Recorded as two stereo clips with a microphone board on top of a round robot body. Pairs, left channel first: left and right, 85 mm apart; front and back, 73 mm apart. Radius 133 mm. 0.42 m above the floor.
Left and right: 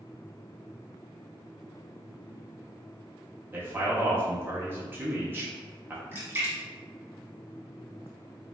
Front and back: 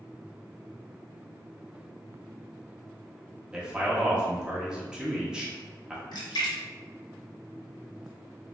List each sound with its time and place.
3.5 s a man speaking: 110° right, 1.3 m
6.1 s a splash: 20° right, 1.0 m